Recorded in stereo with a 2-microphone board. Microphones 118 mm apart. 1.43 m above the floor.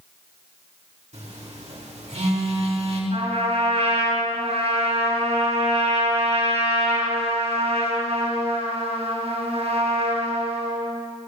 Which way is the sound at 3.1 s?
65° right (ahead or behind).